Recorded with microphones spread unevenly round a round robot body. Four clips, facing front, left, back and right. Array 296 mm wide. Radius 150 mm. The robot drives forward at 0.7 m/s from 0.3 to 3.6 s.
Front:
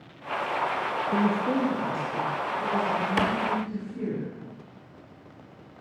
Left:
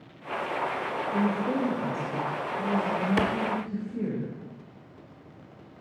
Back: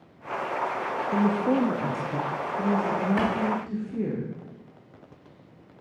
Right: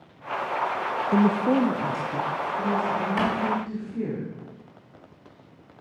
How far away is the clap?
About 0.7 m.